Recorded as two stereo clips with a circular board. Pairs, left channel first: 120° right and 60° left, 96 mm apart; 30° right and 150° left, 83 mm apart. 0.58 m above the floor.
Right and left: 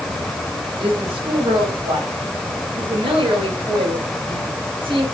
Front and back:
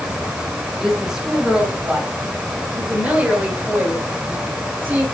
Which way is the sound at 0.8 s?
65° left.